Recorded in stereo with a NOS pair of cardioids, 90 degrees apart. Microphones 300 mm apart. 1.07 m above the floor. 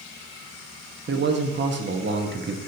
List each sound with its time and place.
1.1 s a man speaking: 40° right, 1.2 m